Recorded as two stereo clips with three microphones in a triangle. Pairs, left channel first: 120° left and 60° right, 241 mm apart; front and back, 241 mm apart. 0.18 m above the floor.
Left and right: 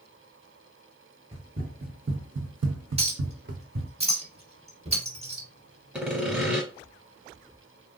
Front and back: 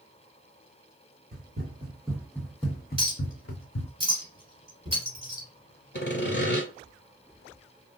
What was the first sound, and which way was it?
Running footsteps, 125° right.